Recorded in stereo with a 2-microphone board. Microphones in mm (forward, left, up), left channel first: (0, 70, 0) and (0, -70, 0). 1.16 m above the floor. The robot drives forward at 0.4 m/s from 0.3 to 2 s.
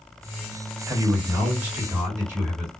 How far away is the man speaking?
About 1.7 m.